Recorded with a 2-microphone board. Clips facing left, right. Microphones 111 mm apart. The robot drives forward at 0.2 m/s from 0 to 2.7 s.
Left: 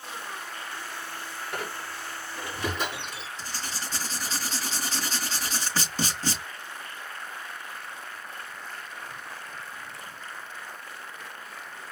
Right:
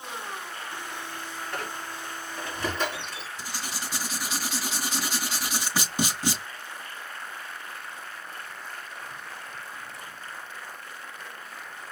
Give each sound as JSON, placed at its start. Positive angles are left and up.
{"t": 1.5, "sound": "a squeak", "side_deg": 15, "distance_m": 4.0}
{"t": 3.4, "sound": "writing", "side_deg": -10, "distance_m": 4.0}